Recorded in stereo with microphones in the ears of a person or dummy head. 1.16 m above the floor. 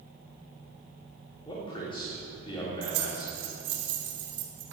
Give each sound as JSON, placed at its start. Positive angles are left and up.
{"t": 1.4, "sound": "a man speaking", "side_deg": 25, "distance_m": 4.0}
{"t": 2.8, "sound": "keys jangling", "side_deg": -60, "distance_m": 2.0}